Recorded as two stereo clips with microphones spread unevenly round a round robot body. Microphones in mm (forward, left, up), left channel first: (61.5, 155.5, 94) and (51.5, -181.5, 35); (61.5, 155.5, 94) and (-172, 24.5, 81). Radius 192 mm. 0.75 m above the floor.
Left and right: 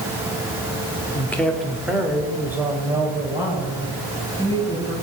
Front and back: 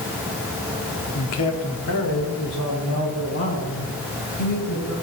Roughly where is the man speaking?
Ahead.